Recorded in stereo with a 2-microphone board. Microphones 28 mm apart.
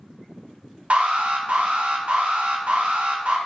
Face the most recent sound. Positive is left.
turn(degrees=-50)  # may be behind; listen again after turning